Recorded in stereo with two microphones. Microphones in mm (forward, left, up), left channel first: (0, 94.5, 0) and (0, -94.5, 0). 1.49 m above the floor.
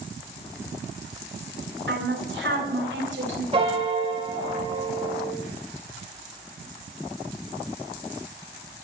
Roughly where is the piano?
Right.